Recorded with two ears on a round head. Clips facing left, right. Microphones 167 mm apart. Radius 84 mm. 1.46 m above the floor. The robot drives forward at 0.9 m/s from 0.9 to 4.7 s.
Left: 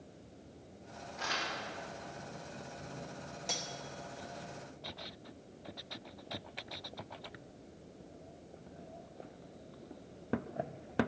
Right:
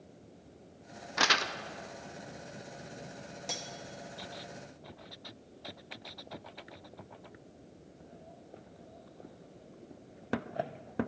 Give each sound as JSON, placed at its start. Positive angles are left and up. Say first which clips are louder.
{"t": 1.2, "sound": "crumpling", "louder": "right 7 dB", "side_deg": -75, "distance_m": 0.5}
{"t": 3.5, "sound": "cutlery clinking", "louder": "even", "side_deg": -5, "distance_m": 0.9}